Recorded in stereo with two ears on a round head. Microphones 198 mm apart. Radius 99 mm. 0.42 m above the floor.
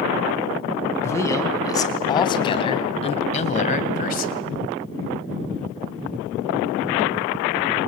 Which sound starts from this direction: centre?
A man speaking, at 1.0 s.